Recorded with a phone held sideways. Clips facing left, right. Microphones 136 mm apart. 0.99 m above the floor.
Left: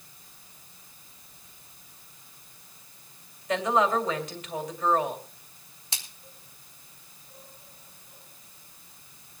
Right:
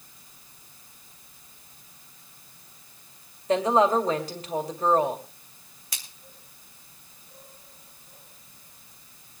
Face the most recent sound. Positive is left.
turn(degrees=25)  # may be behind; listen again after turning